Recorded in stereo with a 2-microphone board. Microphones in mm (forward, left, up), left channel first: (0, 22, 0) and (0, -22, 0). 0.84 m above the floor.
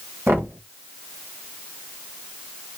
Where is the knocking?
60° right (ahead or behind), 1.2 m.